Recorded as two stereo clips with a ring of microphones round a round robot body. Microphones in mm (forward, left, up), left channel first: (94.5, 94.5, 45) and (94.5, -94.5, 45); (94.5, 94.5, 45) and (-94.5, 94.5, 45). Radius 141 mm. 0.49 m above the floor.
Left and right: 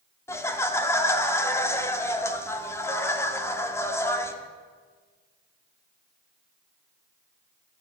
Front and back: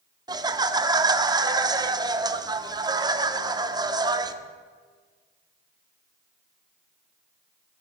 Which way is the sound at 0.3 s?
145° left.